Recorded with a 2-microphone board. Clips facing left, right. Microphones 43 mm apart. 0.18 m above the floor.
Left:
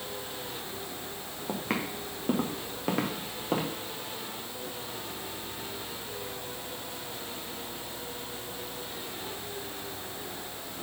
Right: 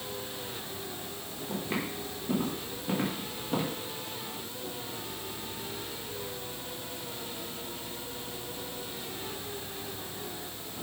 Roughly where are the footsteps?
Left.